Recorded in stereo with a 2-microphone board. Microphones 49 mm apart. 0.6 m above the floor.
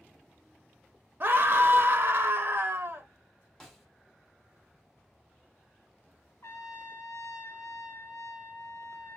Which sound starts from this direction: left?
A trumpet, at 6.4 s.